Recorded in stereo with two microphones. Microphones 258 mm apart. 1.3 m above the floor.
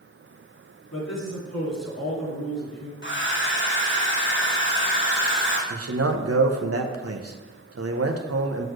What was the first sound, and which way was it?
A man speaking, 85° left.